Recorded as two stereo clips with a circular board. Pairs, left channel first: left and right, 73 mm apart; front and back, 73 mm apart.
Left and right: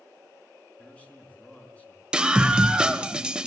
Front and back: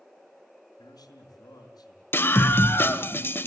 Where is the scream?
20° right, 1.5 m.